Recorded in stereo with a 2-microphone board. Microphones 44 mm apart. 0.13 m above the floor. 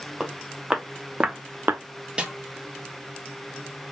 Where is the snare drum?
20° right (ahead or behind), 1.4 m.